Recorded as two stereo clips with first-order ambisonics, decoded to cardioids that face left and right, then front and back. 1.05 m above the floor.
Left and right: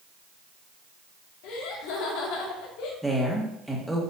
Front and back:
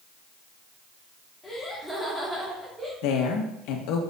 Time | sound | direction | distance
1.4 | laughter | 85° left | 2.5 m
3.0 | a woman speaking | straight ahead | 1.5 m